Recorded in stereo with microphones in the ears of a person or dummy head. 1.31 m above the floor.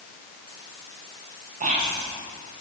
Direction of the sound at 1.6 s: 35° right (ahead or behind).